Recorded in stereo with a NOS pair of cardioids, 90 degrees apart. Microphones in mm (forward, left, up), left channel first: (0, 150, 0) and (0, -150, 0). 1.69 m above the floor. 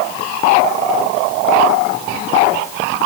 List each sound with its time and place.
Only background noise.